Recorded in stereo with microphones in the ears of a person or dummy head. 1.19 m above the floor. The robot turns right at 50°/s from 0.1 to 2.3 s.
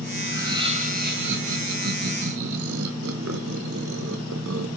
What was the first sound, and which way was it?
Laughter, 175° right.